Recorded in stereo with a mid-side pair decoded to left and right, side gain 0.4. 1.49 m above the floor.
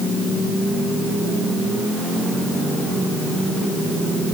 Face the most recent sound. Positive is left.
No sound to turn to.